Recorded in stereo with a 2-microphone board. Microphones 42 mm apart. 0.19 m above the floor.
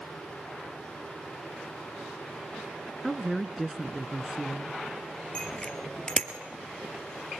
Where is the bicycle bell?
20° left (ahead or behind), 3 m.